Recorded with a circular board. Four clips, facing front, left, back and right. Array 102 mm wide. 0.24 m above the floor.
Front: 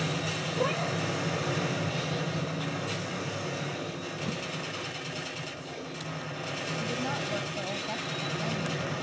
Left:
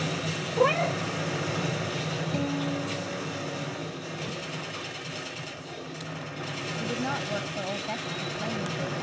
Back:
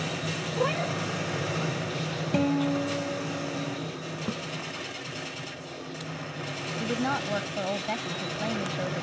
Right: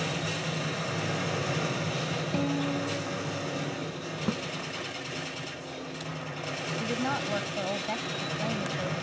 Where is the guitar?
175° right.